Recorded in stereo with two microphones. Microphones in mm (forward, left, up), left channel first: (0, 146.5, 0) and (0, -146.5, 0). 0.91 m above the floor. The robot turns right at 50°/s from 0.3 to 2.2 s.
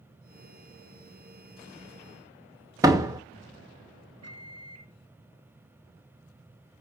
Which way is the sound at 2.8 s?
10° right (ahead or behind).